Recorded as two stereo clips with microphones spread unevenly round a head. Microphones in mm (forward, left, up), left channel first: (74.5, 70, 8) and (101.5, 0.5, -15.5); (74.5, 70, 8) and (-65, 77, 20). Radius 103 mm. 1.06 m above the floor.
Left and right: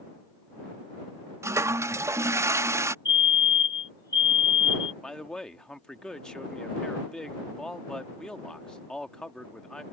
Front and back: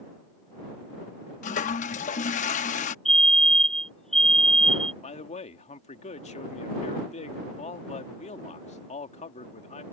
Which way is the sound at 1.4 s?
10° right.